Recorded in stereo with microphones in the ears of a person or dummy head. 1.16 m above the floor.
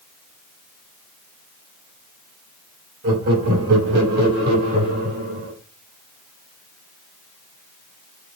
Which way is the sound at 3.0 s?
70° right (ahead or behind).